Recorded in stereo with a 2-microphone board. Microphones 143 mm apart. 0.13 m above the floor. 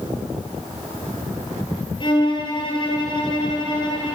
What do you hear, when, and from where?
2.0 s a violin: 35° left (ahead or behind), 3.5 m